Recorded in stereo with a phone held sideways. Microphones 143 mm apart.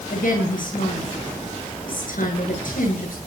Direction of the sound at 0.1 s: 75° left (ahead or behind).